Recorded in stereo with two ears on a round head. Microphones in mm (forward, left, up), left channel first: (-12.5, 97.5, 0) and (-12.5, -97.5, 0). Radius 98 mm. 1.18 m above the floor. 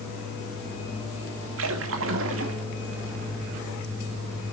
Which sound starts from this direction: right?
A splash, at 1.6 s.